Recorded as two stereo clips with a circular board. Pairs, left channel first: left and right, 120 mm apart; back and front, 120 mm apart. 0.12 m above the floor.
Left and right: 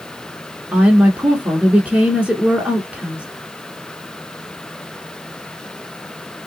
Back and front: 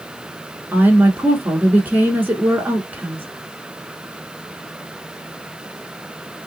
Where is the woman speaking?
35° right, 1.1 m.